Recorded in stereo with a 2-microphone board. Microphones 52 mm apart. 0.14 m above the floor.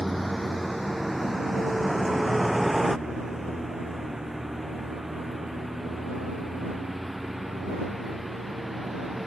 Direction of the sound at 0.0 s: 5° left (ahead or behind).